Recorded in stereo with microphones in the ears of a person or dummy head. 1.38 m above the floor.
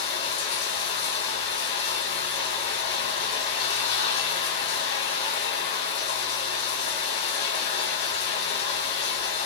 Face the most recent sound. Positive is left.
turn(degrees=65)  # may be behind; listen again after turning